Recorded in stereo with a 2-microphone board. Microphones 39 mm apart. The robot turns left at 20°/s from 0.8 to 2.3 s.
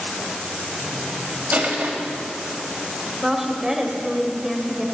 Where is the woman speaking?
10° right (ahead or behind), 1.4 m.